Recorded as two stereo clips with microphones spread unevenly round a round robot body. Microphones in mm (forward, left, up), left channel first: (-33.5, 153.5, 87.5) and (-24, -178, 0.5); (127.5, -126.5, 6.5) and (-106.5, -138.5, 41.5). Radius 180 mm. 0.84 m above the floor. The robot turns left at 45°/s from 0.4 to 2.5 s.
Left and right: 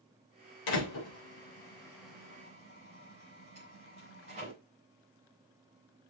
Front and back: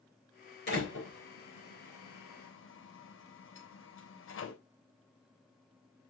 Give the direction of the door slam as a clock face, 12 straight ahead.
10 o'clock.